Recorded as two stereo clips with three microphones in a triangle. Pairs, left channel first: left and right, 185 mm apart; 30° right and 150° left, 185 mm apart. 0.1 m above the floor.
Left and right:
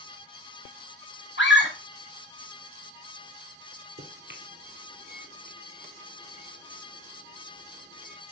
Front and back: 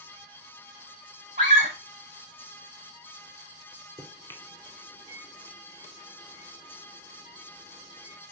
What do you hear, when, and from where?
1.4 s a scream: 105° left, 6.5 m
4.0 s a microwave: 105° right, 2 m